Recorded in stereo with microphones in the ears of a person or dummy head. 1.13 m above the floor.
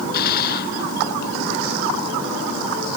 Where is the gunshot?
50° left (ahead or behind).